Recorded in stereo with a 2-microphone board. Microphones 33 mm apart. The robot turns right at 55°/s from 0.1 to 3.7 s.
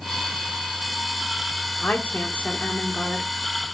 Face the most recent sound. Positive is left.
turn(degrees=165)